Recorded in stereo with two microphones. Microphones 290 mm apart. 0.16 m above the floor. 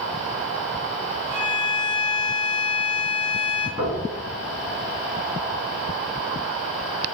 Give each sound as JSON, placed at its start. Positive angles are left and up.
{"t": 1.3, "sound": "a violin", "side_deg": -10, "distance_m": 1.4}
{"t": 3.8, "sound": "knocking", "side_deg": -15, "distance_m": 1.5}